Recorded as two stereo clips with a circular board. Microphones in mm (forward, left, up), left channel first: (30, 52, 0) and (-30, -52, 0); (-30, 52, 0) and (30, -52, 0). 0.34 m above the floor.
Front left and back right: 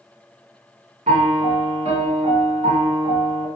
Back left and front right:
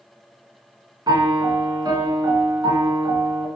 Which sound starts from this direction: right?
A piano, at 1.1 s.